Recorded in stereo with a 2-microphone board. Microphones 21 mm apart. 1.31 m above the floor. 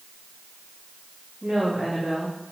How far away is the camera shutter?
I don't hear a camera shutter.